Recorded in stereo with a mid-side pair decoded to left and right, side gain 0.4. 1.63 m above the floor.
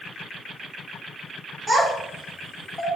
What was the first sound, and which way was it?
A child speaking, 30° right.